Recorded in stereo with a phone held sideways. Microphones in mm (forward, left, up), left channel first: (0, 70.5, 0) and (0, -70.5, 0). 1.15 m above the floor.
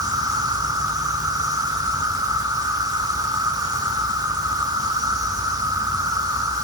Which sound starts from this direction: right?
An insect, at 0.0 s.